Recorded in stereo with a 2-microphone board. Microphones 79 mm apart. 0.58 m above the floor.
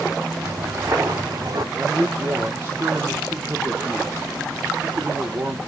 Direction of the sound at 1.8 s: 30° right (ahead or behind).